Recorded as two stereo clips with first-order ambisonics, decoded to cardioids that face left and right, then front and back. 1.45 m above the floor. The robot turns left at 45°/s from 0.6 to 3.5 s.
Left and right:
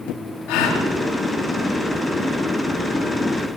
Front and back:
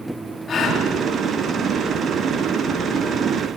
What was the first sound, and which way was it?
A gasp, 65° left.